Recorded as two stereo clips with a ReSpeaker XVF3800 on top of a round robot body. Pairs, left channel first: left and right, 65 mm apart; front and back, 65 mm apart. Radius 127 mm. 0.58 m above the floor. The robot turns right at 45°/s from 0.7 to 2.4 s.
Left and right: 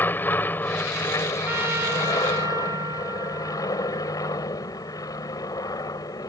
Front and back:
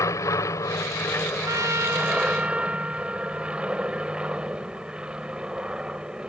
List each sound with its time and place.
0.0 s an aircraft: 35° left; by 6.3 s 105° left
1.4 s a trumpet: 150° right; by 4.4 s 110° right